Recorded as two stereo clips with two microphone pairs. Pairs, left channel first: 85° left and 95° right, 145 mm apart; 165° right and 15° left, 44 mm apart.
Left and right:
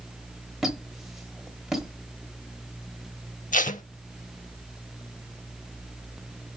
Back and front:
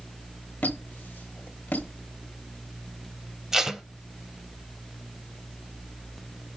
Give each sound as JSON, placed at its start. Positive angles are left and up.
{"t": 0.6, "sound": "a squeak", "azimuth_deg": 175, "distance_m": 1.0}
{"t": 3.5, "sound": "tape being pulled", "azimuth_deg": 85, "distance_m": 0.5}